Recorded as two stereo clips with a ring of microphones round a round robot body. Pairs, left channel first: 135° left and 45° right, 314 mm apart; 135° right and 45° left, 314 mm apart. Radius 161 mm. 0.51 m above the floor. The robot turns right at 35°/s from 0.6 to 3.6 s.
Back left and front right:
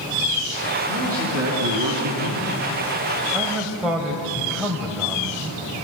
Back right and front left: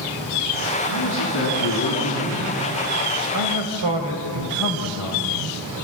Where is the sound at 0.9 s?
100° right, 4.5 m; by 2.6 s 40° right, 4.5 m.